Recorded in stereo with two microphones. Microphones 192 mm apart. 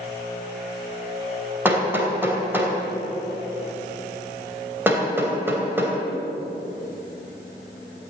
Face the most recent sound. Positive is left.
turn(degrees=-10)  # may be behind; listen again after turning